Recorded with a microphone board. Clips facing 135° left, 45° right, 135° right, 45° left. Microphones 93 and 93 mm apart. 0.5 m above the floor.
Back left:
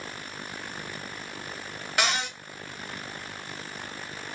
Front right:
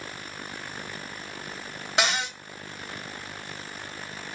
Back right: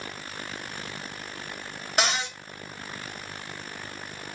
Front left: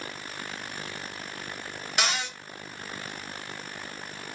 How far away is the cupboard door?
About 1.7 m.